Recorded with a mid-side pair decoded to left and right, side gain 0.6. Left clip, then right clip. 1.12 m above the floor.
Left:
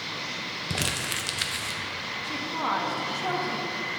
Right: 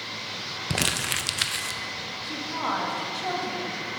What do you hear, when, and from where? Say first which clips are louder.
0.7 s crumpling: right 4 dB; 20° right, 0.5 m
2.2 s a woman speaking: even; 5° left, 1.4 m